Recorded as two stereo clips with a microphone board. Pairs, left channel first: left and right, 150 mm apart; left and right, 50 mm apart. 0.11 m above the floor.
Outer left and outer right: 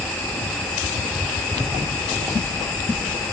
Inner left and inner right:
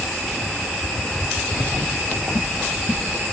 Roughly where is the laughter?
Centre.